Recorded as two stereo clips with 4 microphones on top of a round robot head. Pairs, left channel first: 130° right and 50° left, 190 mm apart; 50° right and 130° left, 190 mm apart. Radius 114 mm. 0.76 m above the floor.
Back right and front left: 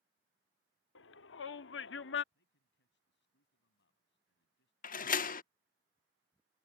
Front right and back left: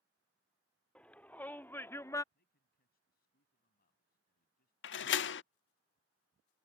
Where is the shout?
135° right; by 2.2 s 125° right.